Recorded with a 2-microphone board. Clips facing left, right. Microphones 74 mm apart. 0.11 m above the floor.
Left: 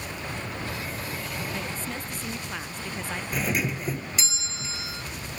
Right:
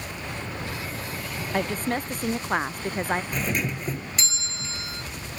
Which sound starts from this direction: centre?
A doorbell, at 3.3 s.